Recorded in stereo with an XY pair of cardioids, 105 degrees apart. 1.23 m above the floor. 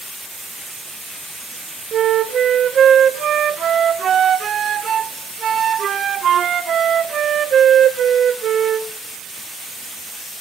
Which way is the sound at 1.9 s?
50° right.